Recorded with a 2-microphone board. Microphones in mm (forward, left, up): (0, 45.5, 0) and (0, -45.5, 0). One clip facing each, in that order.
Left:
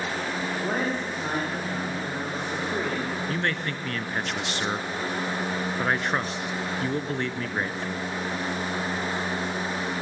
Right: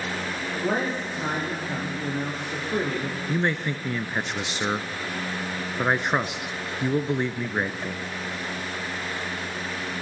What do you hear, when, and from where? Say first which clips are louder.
0.5 s a man speaking: right 3 dB; 10° right (ahead or behind), 7 m
3.3 s a man speaking: right 3 dB; 15° right (ahead or behind), 1.4 m